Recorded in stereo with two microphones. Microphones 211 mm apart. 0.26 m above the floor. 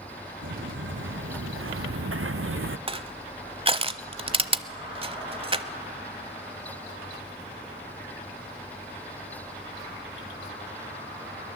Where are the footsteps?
65° right (ahead or behind), 2 m; by 2.8 s 70° right (ahead or behind), 0.8 m.